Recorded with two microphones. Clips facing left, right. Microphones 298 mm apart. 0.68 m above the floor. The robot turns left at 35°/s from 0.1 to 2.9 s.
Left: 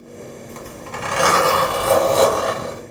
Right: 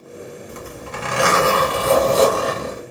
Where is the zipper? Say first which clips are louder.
Even; 20° right, 1.3 m; by 2.8 s 100° right, 1.3 m.